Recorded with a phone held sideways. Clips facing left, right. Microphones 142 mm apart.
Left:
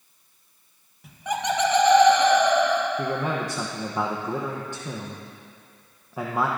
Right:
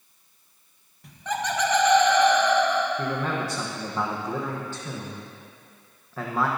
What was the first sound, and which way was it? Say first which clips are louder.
Laughter: left 2 dB; 5° left (ahead or behind).